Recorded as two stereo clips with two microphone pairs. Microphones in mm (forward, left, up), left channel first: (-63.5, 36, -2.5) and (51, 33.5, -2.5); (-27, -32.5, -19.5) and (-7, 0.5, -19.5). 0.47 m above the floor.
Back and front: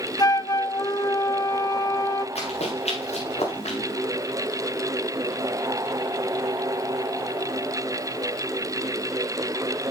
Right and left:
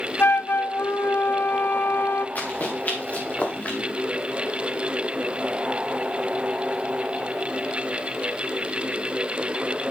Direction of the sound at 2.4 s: 160° right.